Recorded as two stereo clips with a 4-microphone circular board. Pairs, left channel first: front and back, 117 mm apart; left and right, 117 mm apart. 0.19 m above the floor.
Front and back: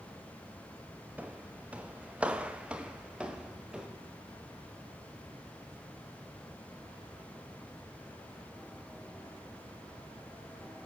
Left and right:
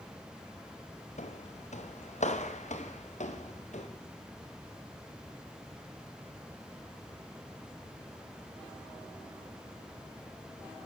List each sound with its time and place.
1.2 s footsteps: 105° left, 1.8 m; by 3.9 s 100° left, 3.5 m